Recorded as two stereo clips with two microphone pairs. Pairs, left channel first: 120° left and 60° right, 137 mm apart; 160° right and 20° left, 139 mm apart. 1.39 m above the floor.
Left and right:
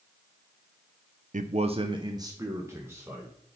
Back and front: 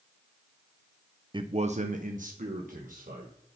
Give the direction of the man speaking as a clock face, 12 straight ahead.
1 o'clock.